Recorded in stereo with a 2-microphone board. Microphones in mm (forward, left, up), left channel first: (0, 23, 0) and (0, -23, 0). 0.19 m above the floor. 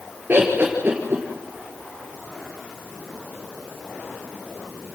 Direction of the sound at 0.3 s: 40° right (ahead or behind).